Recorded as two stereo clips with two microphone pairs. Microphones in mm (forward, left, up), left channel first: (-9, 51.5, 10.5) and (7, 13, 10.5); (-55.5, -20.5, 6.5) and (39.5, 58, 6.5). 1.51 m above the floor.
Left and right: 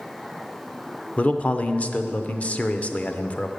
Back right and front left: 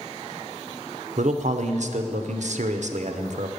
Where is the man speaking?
55° left, 0.6 m.